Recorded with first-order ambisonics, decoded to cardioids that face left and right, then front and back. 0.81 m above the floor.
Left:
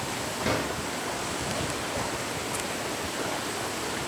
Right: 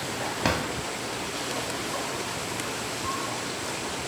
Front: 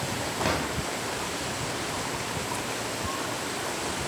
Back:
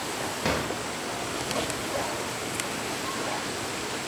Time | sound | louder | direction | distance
0.4 | a drawer | right 1 dB, even | 90° right | 1.3 m